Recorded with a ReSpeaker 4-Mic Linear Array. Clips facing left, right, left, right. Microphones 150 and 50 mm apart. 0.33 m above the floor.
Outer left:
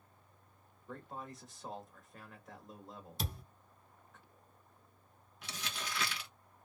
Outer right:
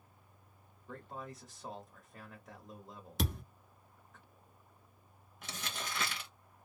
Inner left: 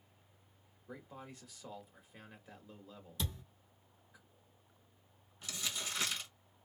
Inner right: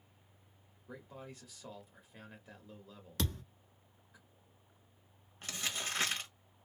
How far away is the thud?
About 1.1 m.